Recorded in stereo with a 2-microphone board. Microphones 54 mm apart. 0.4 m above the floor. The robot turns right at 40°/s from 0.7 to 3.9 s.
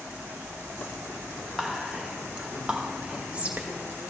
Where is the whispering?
5° right (ahead or behind), 0.8 m; by 3.7 s 25° right (ahead or behind), 0.8 m.